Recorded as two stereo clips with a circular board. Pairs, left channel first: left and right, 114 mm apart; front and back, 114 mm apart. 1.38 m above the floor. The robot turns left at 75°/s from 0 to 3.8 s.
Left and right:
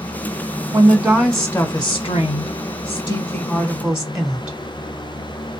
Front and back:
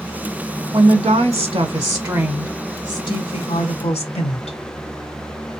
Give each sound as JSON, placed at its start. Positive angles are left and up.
{"t": 0.7, "sound": "a woman speaking", "azimuth_deg": -135, "distance_m": 1.2}